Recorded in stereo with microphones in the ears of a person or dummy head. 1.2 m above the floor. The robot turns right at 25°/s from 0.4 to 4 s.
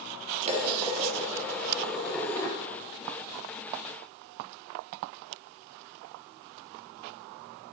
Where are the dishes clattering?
35° right, 1.3 m; by 2.6 s 15° left, 1.3 m.